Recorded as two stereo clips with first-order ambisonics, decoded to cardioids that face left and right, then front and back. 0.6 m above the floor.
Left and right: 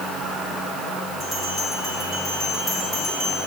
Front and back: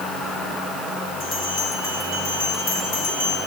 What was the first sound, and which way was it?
A bell, 30° left.